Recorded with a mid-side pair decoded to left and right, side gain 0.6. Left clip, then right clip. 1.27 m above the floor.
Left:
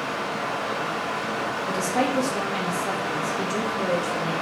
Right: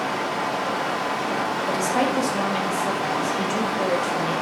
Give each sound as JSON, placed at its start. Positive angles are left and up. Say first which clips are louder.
{"t": 0.0, "sound": "running water", "louder": "right 3 dB", "azimuth_deg": -60, "distance_m": 2.5}
{"t": 1.7, "sound": "a woman speaking", "louder": "right 1 dB", "azimuth_deg": -10, "distance_m": 1.6}